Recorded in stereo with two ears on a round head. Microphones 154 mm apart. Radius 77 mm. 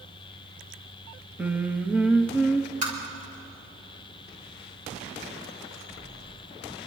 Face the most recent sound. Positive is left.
turn(degrees=-45)  # may be behind; listen again after turning